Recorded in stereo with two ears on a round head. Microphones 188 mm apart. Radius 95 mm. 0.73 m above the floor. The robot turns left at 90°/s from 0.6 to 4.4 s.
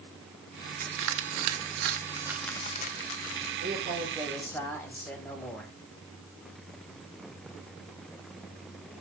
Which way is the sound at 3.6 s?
115° right.